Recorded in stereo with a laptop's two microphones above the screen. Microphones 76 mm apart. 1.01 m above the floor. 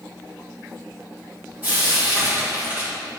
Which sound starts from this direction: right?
Frying, at 1.6 s.